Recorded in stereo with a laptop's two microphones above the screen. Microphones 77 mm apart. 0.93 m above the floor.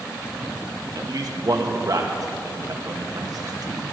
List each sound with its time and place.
0.9 s a man speaking: 50° right (ahead or behind), 1.2 m